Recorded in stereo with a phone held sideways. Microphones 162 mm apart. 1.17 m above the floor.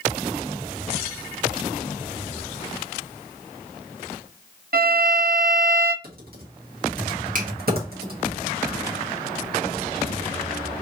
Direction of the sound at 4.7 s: 70° right (ahead or behind).